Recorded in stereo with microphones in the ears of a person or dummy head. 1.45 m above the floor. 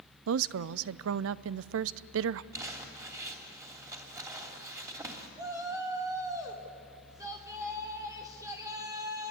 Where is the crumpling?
20° right (ahead or behind), 3 m.